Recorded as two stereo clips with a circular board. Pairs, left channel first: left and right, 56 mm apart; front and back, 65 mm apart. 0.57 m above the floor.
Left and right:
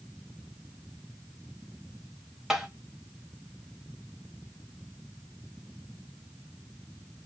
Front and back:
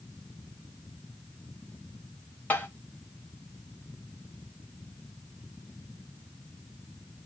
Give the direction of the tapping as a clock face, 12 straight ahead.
1 o'clock.